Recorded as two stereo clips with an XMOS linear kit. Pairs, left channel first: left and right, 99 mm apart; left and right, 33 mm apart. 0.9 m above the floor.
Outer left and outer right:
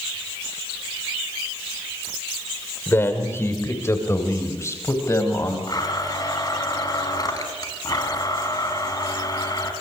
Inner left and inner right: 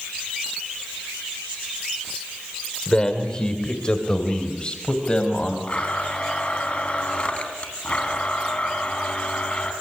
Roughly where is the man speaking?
Left.